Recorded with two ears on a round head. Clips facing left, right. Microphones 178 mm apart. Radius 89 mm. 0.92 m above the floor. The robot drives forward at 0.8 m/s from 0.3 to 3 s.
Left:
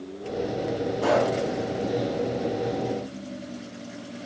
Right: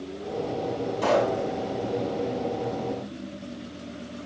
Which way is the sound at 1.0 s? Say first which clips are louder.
Even; 60° right (ahead or behind).